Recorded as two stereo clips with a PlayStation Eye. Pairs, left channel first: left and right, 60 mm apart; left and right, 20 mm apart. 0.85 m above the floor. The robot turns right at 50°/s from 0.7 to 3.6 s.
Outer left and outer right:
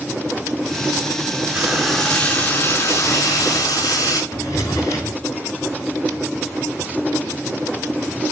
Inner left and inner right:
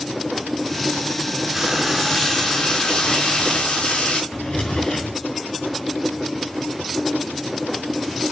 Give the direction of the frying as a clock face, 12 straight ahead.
1 o'clock.